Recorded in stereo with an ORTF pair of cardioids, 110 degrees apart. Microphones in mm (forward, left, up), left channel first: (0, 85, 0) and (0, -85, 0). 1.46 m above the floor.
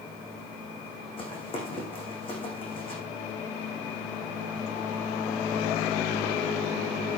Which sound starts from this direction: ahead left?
Running footsteps, at 1.2 s.